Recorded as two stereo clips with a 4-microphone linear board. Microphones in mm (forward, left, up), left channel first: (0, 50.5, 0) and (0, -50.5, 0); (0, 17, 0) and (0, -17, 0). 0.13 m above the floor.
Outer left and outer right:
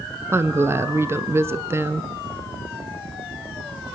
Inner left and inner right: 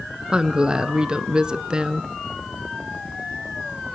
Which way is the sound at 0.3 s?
25° right (ahead or behind).